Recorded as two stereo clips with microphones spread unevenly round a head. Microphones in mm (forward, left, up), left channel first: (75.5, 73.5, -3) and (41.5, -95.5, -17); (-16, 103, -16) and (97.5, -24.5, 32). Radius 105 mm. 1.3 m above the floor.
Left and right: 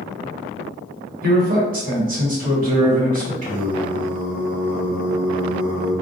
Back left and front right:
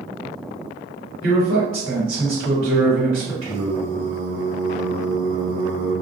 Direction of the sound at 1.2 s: 65° right.